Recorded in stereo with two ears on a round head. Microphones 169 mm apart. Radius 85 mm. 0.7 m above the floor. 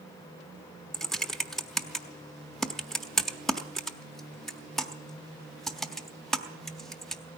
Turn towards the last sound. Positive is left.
turn(degrees=0)  # may be behind; listen again after turning